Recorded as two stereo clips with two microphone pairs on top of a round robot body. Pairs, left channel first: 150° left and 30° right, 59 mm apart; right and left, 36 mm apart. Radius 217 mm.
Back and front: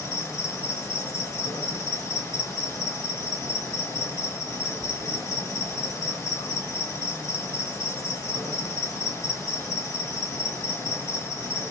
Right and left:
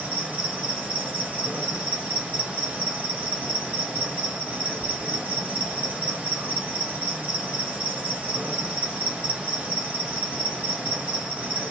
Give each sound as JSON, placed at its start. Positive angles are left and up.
{"t": 0.0, "sound": "an insect", "azimuth_deg": 135, "distance_m": 2.5}